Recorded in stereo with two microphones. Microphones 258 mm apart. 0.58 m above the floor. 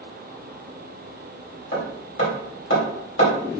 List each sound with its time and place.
1.7 s hammering: 50° left (ahead or behind), 2.5 m